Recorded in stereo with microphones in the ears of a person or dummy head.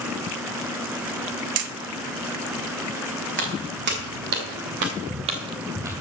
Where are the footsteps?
55° right (ahead or behind), 2.5 m; by 6.0 s 10° right (ahead or behind), 1.5 m.